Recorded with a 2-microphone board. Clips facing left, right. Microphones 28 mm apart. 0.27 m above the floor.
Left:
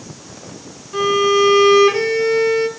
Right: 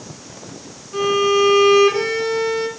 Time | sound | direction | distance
0.9 | a violin | 5° left (ahead or behind) | 1.6 m